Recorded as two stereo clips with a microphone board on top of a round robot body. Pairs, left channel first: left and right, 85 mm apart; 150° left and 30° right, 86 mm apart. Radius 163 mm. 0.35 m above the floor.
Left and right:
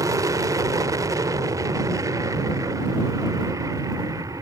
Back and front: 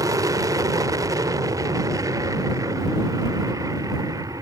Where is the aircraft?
60° right.